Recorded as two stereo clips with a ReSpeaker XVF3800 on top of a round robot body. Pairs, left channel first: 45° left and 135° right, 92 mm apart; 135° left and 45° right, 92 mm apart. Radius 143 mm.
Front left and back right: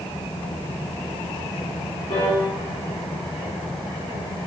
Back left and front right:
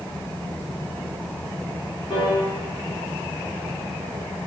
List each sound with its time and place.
2.1 s a piano: 85° left, 1.8 m